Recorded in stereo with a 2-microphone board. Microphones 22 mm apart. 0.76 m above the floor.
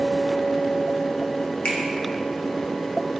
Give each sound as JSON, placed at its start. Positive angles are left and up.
{"t": 1.6, "sound": "a finger snap", "side_deg": 50, "distance_m": 1.3}